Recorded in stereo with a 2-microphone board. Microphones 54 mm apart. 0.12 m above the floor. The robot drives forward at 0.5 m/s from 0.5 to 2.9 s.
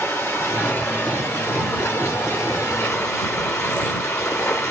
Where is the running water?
45° left (ahead or behind), 3 m; by 4.7 s 65° left (ahead or behind), 2.5 m.